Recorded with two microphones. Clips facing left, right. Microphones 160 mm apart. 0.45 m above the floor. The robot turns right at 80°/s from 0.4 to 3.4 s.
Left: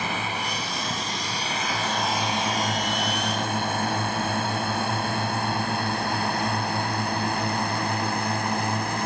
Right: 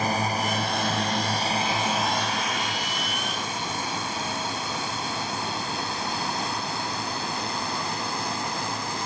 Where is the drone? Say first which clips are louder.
Right 4 dB; 40° right (ahead or behind); by 9.1 s 60° left (ahead or behind).